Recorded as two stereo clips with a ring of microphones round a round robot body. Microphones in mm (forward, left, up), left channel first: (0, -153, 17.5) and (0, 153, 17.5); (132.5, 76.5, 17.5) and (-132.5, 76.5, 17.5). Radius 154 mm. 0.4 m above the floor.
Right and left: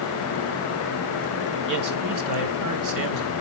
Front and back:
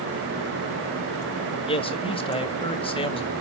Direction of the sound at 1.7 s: 70° left.